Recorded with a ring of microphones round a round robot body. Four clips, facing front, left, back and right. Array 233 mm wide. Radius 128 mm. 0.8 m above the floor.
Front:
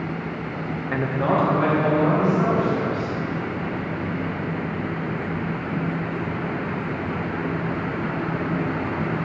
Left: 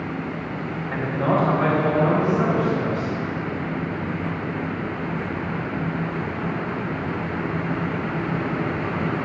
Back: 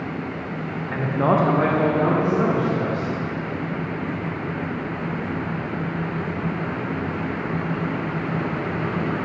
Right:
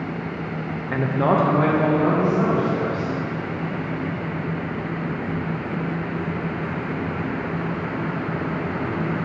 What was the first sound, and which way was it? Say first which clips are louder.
A man speaking: right 2 dB, back 2 dB; 35° right.